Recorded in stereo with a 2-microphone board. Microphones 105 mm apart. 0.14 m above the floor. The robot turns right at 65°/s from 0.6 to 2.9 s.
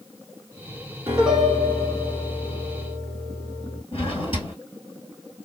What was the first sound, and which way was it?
A piano, 20° right.